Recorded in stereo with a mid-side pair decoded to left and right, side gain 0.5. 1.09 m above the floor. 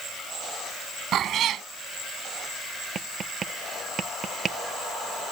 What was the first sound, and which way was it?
A cat meowing, 60° right.